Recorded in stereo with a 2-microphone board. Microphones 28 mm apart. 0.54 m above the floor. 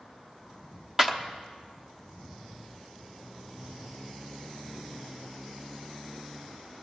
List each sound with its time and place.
1.0 s a clap: 15° right (ahead or behind), 1.0 m